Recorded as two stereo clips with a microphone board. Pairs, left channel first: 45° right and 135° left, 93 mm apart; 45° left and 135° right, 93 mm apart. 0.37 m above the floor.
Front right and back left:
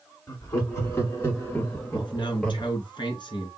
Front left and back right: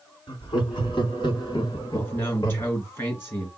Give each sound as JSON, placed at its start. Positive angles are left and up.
{"t": 0.3, "sound": "laughter", "azimuth_deg": 10, "distance_m": 3.0}
{"t": 1.9, "sound": "a man speaking", "azimuth_deg": -15, "distance_m": 3.5}